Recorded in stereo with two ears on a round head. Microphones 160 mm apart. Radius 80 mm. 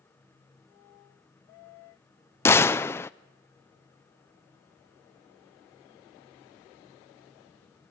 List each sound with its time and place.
2.5 s a gunshot: 15° left (ahead or behind), 0.5 m